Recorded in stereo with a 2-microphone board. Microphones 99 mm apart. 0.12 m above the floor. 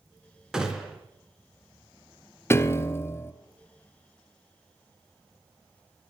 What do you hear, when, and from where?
0.5 s a gunshot: 5° right (ahead or behind), 1.7 m
2.5 s a piano: 25° left (ahead or behind), 0.7 m